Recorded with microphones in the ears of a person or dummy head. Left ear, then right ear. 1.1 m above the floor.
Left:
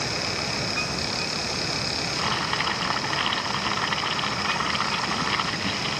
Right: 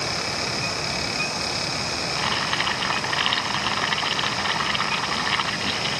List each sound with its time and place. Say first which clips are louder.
2.2 s boiling: right 2 dB; 25° right (ahead or behind)